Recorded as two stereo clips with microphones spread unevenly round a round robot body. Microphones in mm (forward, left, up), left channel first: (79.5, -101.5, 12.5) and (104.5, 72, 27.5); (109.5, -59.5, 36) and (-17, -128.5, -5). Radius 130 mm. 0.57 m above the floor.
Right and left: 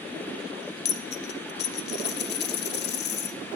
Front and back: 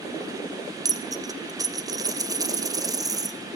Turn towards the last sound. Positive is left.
turn(degrees=-80)